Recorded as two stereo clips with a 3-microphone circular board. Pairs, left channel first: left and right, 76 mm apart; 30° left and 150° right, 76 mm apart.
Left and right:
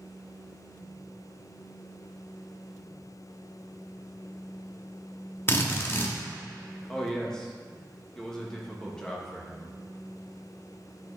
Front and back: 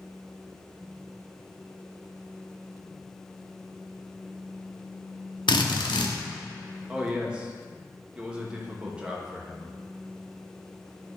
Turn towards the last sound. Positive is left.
turn(degrees=155)